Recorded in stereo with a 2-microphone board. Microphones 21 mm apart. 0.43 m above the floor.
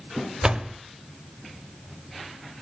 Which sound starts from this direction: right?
A door slam, at 0.4 s.